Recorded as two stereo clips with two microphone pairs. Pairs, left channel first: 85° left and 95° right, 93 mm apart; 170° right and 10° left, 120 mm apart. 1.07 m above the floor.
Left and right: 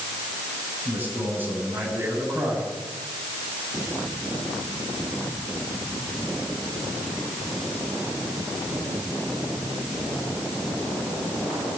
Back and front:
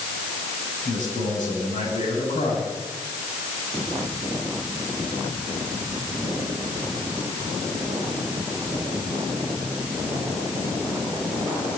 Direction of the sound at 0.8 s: 165° right.